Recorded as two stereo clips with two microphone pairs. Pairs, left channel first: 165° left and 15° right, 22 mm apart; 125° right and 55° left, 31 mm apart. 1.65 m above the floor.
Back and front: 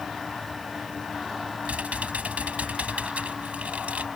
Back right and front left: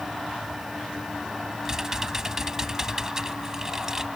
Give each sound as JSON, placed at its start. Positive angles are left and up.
{"t": 1.6, "sound": "typing on a keyboard", "azimuth_deg": -20}